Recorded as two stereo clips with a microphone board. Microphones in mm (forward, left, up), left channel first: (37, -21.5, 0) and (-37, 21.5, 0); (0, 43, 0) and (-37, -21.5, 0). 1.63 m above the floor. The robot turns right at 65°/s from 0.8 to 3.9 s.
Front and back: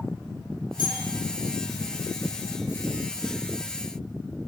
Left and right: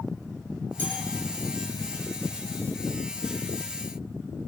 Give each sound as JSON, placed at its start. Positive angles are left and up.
{"t": 0.8, "sound": "a bell", "azimuth_deg": -10, "distance_m": 10.0}